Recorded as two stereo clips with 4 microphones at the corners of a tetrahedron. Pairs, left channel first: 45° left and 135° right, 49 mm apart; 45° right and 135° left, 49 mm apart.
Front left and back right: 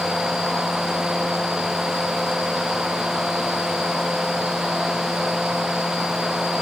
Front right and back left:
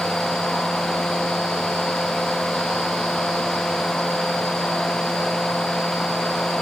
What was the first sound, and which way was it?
Only background noise.